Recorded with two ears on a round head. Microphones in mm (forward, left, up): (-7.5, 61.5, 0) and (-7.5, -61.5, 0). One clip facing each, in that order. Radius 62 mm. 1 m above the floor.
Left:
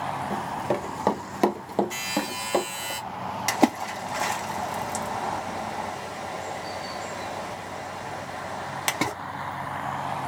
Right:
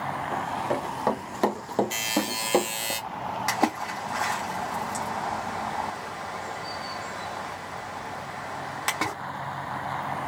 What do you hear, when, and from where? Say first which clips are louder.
0.3 s running footsteps: even; 40° left (ahead or behind), 1.3 m; by 2.9 s 30° right (ahead or behind), 1.1 m
1.9 s a buzzer: right 1 dB; 30° right (ahead or behind), 1.0 m
3.5 s a splash: left 5 dB; 25° left (ahead or behind), 0.8 m